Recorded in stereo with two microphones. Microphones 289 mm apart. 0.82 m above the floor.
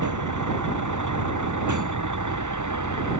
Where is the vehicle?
90° right; by 3.2 s 85° right.